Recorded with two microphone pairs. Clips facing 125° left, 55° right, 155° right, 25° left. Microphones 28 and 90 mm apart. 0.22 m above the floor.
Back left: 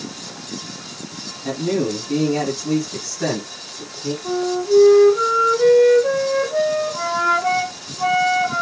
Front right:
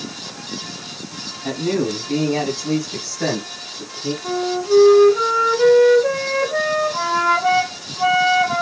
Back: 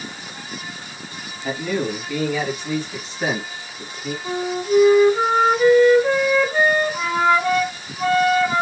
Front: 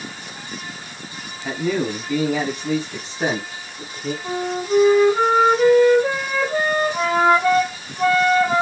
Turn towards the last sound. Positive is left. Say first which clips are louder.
# back left 1 dB, back 2 dB
turn(degrees=-10)